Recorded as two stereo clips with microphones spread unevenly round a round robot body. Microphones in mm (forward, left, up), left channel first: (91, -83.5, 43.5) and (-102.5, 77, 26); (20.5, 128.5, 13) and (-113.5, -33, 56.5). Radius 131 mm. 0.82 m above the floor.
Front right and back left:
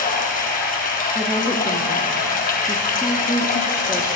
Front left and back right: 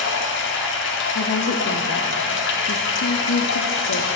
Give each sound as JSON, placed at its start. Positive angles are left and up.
{"t": 0.0, "sound": "running water", "azimuth_deg": 20, "distance_m": 1.4}
{"t": 1.1, "sound": "a woman speaking", "azimuth_deg": 50, "distance_m": 1.1}